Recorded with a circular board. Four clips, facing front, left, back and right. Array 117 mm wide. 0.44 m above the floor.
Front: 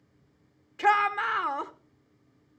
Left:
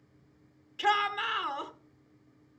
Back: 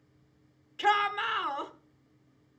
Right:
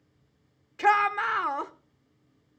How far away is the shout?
About 1.0 m.